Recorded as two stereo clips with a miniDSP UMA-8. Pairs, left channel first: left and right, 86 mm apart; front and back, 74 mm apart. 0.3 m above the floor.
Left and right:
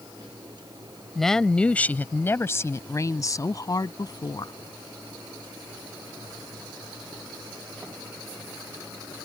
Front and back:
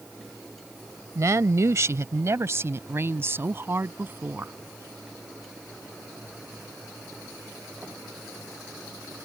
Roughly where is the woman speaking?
Behind.